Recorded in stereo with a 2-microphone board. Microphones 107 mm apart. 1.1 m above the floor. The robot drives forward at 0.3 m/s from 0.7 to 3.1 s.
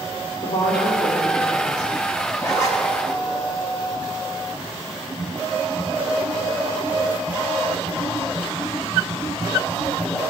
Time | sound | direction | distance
0.4 | a woman speaking | 65° left (ahead or behind) | 2.5 m
2.4 | a zipper | 35° left (ahead or behind) | 1.3 m